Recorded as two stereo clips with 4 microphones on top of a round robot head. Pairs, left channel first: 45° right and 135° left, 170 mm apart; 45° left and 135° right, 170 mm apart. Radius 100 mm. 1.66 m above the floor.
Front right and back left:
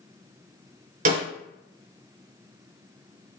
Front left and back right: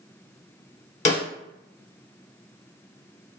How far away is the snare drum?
About 1.9 m.